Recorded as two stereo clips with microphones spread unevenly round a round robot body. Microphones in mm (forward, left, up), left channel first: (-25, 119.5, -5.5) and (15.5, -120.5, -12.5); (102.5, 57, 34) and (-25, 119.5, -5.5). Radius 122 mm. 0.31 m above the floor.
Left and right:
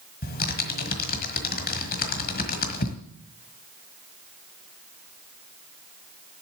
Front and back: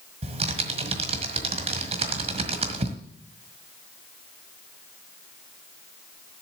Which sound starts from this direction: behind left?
Typing on a keyboard, at 0.2 s.